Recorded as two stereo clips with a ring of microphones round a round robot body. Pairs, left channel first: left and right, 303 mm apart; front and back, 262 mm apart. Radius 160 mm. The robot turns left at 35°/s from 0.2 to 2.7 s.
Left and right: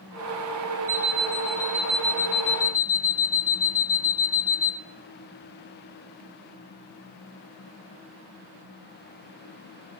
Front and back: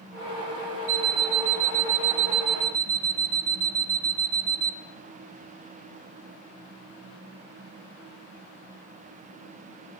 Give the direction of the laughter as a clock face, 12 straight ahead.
I don't hear laughter.